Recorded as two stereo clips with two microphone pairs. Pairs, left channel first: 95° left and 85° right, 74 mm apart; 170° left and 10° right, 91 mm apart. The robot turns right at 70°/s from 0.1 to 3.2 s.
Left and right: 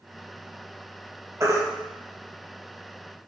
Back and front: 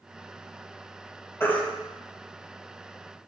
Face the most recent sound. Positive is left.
turn(degrees=0)